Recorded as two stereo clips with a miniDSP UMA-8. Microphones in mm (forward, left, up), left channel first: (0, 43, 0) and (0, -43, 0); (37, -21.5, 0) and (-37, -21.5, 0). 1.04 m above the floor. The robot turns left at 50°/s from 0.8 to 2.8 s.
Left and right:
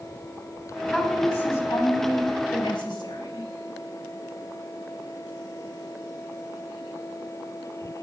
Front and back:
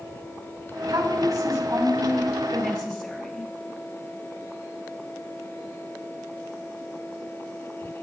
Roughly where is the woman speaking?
Behind.